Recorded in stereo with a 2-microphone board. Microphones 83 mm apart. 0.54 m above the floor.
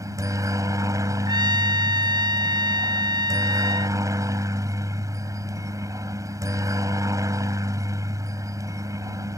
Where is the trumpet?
65° right (ahead or behind).